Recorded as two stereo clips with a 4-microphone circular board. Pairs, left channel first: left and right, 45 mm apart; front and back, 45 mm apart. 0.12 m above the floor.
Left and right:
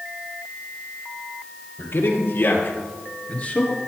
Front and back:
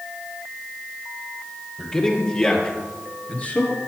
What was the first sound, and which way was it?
A man speaking, 70° left.